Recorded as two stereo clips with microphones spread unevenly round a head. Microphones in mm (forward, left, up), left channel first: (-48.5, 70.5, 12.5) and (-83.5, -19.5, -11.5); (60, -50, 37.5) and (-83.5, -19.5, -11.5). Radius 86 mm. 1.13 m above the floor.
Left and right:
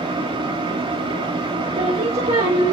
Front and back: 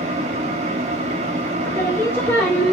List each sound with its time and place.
0.0 s a fan: 145° right, 1.3 m
1.6 s singing: 85° right, 1.5 m